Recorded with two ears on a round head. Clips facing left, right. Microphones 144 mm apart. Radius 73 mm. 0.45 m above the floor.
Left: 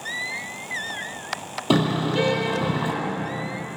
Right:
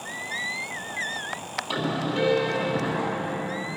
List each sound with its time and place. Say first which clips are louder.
1.7 s a car horn: left 6 dB; 65° left (ahead or behind), 8 m